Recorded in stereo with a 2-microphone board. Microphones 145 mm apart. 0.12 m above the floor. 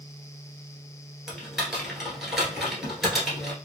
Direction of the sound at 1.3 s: Centre (ahead or behind).